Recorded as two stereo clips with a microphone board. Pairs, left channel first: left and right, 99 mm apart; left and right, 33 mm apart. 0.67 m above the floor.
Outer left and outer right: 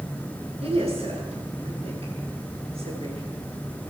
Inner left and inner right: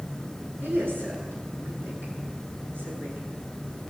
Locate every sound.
0.6 s a woman speaking: 85° right, 9 m